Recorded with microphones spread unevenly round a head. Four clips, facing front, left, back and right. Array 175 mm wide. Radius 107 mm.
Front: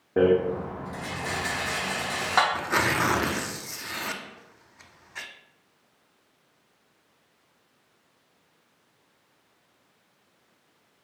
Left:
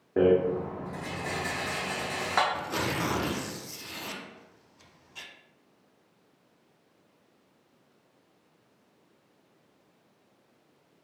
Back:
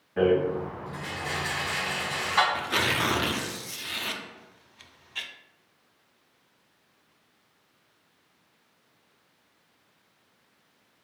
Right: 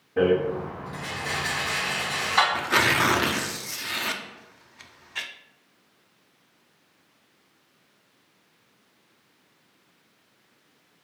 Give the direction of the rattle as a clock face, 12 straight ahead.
11 o'clock.